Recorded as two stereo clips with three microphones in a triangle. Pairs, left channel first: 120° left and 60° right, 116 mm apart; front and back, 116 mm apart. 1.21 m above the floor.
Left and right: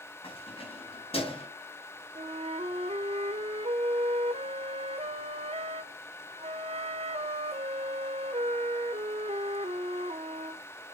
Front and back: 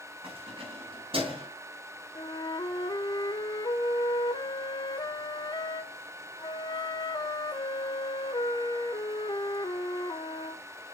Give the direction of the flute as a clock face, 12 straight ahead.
2 o'clock.